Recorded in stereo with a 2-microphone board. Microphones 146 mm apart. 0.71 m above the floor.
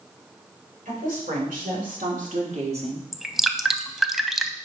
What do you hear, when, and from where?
0.8 s a woman speaking: 70° right (ahead or behind), 3 m; by 3.0 s 35° right (ahead or behind), 1.4 m
3.1 s dripping: centre (ahead or behind), 0.5 m